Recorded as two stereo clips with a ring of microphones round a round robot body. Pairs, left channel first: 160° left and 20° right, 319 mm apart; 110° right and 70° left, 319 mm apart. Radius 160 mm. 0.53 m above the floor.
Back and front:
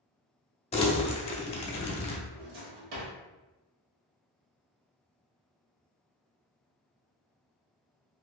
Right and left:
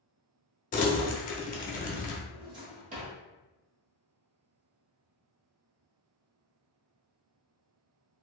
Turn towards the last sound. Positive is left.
turn(degrees=0)